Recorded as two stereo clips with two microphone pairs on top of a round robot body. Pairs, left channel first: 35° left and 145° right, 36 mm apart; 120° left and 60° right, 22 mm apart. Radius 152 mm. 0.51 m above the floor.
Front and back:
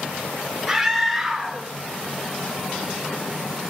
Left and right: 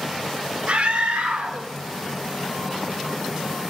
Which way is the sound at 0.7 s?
70° right.